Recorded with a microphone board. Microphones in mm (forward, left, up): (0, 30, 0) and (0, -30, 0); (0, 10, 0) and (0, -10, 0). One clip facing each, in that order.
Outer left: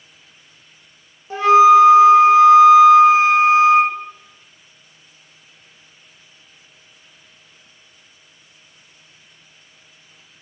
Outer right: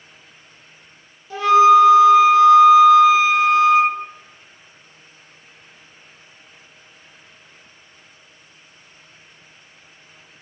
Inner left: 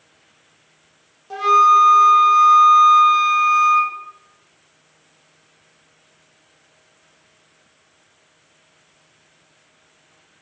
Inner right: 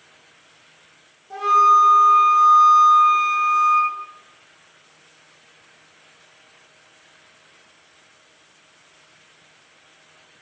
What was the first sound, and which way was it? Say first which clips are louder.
A flute: outer left 2 dB, inner left 2 dB; 30° left (ahead or behind).